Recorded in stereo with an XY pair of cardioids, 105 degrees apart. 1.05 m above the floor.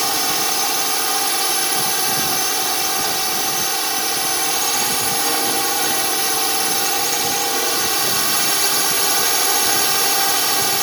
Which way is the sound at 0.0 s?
15° right.